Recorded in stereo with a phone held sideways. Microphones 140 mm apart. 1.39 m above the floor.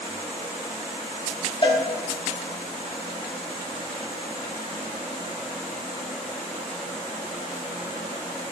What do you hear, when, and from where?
1.6 s a cowbell: 40° left (ahead or behind), 1.6 m